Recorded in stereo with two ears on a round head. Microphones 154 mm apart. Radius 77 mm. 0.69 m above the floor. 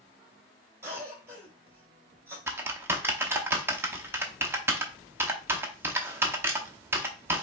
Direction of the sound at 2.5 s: 15° right (ahead or behind).